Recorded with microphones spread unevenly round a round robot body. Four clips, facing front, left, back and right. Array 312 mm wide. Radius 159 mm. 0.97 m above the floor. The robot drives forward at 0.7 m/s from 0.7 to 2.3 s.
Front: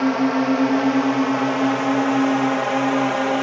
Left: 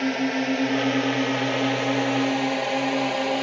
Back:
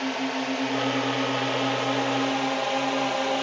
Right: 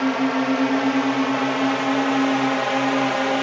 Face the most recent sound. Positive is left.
turn(degrees=-25)